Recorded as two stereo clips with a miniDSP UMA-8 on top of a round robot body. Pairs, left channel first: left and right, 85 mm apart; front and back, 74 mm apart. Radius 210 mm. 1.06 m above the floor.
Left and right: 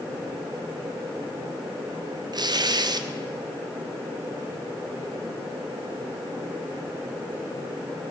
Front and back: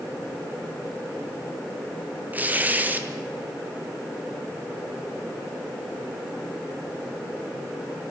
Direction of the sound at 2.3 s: 115° right.